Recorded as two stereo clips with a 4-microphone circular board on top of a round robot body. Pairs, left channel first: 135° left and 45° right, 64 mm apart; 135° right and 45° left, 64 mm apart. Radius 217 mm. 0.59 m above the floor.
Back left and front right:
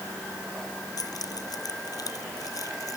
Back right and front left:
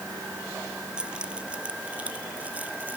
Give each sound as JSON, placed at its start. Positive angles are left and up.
{"t": 1.0, "sound": "keys jangling", "azimuth_deg": 120}